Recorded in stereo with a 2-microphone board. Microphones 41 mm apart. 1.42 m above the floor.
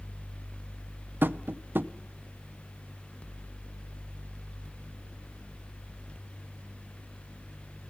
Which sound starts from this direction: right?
Tapping, at 1.2 s.